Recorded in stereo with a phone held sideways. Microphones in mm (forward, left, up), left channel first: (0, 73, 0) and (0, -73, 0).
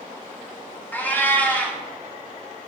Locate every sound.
0.9 s a cat meowing: 10° left (ahead or behind), 1.1 m